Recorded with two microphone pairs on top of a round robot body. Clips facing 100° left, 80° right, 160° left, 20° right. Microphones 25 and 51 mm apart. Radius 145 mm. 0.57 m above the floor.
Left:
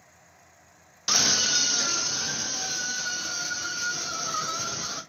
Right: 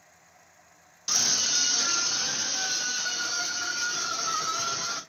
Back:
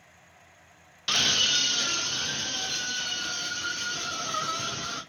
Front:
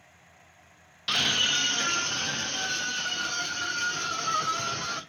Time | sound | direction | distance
1.1 | a scream | 60° left | 0.7 m